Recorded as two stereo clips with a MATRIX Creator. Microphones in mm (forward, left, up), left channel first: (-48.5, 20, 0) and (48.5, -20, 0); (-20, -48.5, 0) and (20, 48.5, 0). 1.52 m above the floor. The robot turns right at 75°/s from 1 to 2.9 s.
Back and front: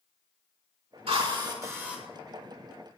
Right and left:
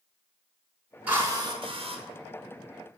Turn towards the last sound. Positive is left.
turn(degrees=130)